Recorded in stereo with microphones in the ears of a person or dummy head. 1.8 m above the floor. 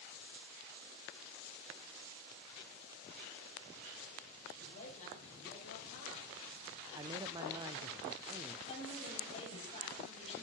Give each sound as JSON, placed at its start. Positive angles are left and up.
{"t": 4.5, "sound": "a man speaking", "side_deg": 45, "distance_m": 7.5}
{"t": 6.9, "sound": "a man speaking", "side_deg": -25, "distance_m": 0.6}
{"t": 8.7, "sound": "a woman speaking", "side_deg": 35, "distance_m": 9.0}